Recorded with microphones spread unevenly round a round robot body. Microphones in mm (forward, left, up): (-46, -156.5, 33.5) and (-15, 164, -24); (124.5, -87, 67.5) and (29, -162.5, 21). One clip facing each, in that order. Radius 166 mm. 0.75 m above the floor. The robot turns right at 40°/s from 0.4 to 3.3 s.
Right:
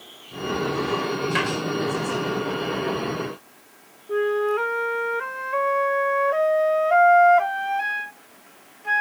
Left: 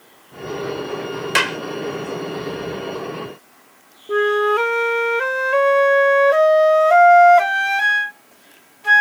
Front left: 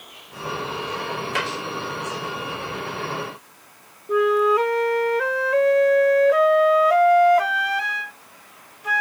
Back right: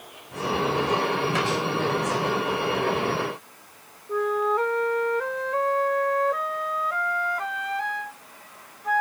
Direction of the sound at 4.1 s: 80° left.